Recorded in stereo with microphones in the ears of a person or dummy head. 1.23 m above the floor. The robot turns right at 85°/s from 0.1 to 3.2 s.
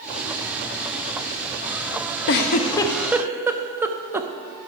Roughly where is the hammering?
No hammering in this recording.